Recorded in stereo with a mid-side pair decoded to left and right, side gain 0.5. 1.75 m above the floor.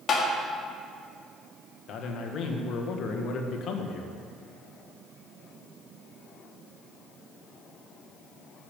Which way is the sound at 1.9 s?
60° left.